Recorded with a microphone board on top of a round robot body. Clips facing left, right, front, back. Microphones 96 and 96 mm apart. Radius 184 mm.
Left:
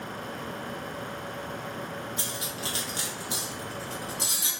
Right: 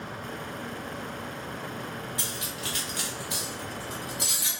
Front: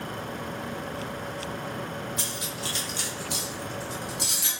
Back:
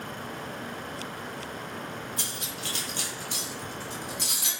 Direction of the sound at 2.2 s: 145° left.